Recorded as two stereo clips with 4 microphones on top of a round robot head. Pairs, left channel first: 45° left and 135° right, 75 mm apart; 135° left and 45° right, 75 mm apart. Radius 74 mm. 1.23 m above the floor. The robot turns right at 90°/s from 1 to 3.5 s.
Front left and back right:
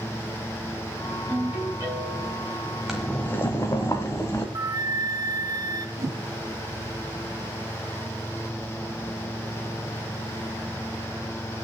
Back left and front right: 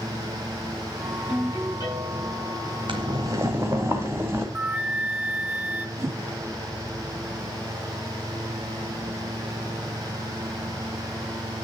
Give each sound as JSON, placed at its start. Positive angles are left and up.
{"t": 1.3, "sound": "a ringtone", "azimuth_deg": 120, "distance_m": 5.0}
{"t": 2.9, "sound": "boiling", "azimuth_deg": -50, "distance_m": 1.1}
{"t": 4.5, "sound": "a flute", "azimuth_deg": -110, "distance_m": 0.9}
{"t": 6.0, "sound": "a whoosh", "azimuth_deg": -100, "distance_m": 0.6}